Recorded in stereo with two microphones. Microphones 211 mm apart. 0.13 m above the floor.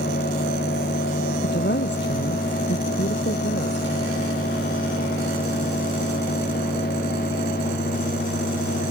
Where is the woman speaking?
65° left (ahead or behind).